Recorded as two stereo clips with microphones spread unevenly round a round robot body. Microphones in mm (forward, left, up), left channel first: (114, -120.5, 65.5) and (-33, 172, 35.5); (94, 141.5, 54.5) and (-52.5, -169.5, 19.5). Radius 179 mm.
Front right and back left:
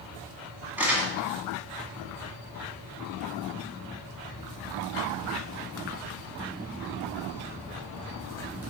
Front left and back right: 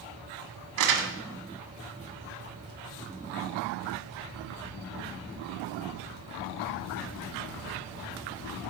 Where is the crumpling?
155° right, 1.4 m.